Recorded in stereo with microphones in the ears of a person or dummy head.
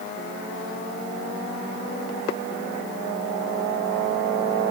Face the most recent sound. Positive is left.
No sound to turn to.